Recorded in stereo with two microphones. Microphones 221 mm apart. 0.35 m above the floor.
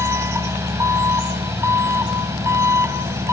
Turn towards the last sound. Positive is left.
turn(degrees=-10)  # may be behind; listen again after turning